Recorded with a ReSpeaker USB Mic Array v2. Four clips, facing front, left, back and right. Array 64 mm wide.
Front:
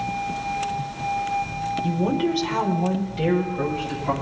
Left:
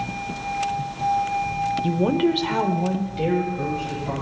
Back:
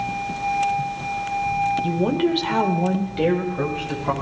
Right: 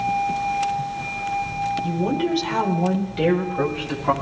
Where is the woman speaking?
115° left, 1.4 m; by 4.1 s 115° right, 2 m.